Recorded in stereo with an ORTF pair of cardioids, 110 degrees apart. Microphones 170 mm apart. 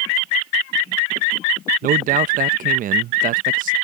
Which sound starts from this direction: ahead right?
A man speaking, at 1.8 s.